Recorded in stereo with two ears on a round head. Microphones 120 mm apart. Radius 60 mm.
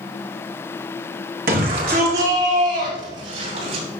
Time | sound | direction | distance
1.5 | a shout | 70° right (ahead or behind) | 3.5 m